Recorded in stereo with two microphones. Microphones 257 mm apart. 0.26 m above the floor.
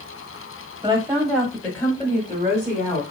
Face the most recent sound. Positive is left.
turn(degrees=35)  # may be behind; listen again after turning